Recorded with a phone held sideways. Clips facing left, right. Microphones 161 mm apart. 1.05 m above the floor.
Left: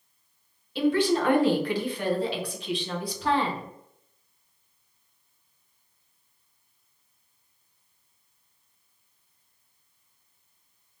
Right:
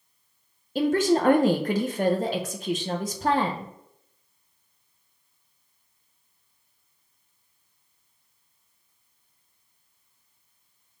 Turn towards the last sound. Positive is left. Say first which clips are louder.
# right 1 dB
turn(degrees=-45)  # may be behind; listen again after turning